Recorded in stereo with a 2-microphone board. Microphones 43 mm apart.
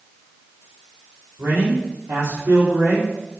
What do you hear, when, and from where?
1.4 s a man speaking: 70° right (ahead or behind), 3.5 m